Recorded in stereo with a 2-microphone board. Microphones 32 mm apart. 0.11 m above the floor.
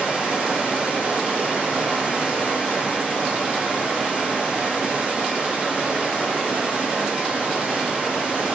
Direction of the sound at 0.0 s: 40° right (ahead or behind).